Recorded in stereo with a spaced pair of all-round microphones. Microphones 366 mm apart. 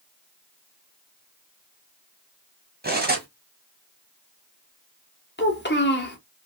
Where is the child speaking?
30° left (ahead or behind), 0.9 m.